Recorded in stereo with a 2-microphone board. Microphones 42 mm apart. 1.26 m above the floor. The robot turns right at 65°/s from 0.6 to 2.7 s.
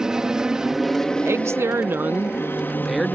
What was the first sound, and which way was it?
An aircraft, 15° right.